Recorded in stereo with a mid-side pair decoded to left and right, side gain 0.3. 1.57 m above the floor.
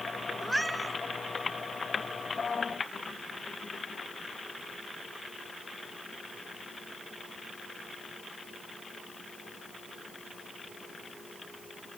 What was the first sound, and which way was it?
A cat meowing, 5° right.